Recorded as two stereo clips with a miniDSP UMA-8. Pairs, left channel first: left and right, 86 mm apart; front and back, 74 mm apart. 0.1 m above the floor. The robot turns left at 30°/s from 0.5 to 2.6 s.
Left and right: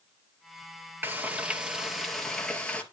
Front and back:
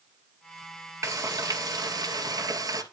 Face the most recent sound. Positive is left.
turn(degrees=165)